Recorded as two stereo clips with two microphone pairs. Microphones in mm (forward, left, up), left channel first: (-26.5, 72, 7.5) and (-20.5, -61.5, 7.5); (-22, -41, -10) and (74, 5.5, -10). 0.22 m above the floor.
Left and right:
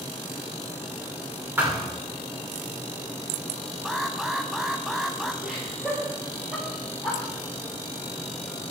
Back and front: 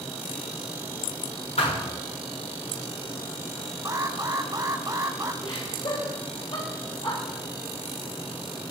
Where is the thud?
160° right, 8.5 m.